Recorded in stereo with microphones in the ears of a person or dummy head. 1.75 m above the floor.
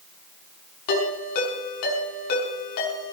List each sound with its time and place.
0.9 s a ringtone: 55° left (ahead or behind), 6.5 m